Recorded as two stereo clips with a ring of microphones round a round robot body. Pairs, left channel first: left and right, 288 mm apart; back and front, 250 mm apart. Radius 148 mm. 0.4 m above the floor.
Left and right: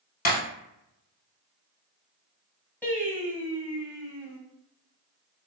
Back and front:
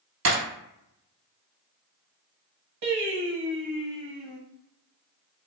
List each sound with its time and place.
0.2 s breaking glass: 30° left, 1.5 m
2.8 s singing: 5° left, 1.0 m